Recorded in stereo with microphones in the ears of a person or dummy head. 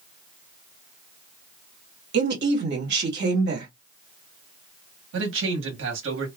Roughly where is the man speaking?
Right.